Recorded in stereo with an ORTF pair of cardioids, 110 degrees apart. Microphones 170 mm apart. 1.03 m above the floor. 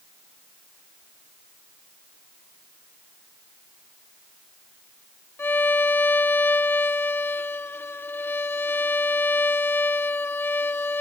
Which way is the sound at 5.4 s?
15° left.